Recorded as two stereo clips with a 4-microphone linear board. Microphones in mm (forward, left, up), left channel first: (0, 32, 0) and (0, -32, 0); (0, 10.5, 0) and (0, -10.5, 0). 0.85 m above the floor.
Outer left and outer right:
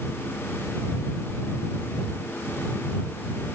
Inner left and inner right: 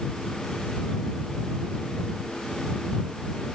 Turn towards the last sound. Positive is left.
No sound to turn to.